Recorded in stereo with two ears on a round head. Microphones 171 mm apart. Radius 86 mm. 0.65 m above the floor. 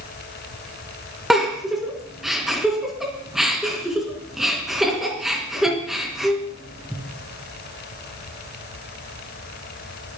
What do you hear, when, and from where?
1.3 s a giggle: centre (ahead or behind), 3 m